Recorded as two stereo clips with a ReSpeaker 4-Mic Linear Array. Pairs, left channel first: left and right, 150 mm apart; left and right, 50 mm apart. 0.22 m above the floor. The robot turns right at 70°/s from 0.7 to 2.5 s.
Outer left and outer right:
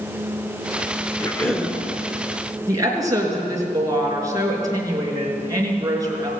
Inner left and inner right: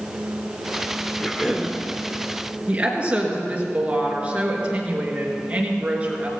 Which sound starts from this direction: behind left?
A cough, at 1.2 s.